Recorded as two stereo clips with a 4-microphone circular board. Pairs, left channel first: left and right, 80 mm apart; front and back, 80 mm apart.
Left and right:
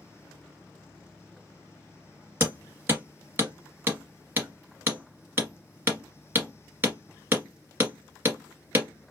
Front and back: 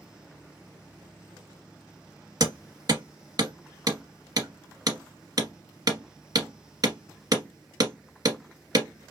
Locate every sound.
2.4 s hammering: 150° right, 1.4 m